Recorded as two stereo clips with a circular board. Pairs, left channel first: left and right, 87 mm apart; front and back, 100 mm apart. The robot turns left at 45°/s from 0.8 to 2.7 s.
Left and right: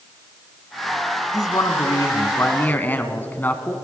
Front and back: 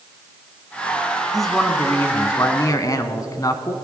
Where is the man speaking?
90° left, 1.3 m; by 3.8 s 30° left, 1.3 m.